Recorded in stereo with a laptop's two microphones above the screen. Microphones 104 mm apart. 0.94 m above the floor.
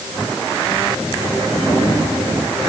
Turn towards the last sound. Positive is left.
No sound to turn to.